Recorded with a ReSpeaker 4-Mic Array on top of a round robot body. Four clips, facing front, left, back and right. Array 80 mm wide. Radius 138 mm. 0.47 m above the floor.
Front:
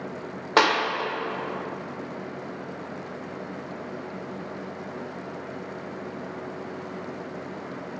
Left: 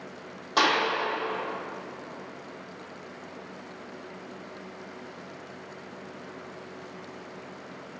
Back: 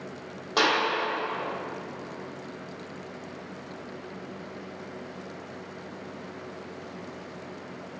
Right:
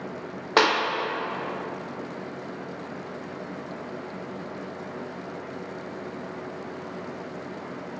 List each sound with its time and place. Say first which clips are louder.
0.6 s a clap: right 3 dB, front 4 dB; 40° right, 1.5 m